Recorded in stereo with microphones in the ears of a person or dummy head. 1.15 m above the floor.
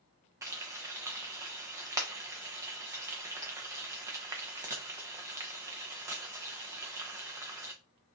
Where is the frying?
15° right (ahead or behind), 0.7 m.